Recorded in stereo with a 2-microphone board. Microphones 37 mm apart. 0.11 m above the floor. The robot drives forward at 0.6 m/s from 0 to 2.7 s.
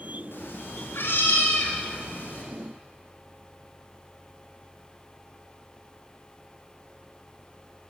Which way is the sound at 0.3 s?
85° left.